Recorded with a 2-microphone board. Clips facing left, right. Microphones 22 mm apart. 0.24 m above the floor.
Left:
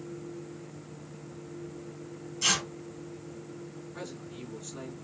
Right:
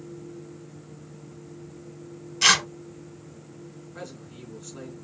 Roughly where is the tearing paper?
Right.